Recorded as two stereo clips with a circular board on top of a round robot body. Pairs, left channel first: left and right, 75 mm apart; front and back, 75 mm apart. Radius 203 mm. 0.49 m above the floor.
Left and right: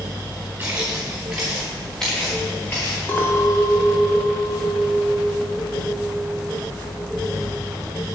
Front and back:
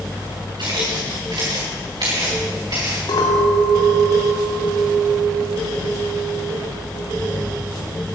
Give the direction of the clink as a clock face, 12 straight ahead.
11 o'clock.